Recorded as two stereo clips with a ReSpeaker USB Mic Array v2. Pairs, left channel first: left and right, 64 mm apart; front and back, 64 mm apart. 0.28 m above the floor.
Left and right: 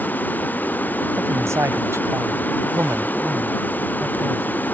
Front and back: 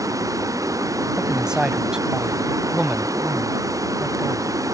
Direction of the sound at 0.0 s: 150° left.